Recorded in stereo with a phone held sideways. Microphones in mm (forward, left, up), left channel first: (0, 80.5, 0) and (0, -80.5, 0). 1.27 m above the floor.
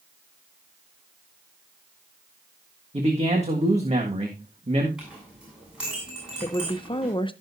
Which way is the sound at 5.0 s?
5° right (ahead or behind).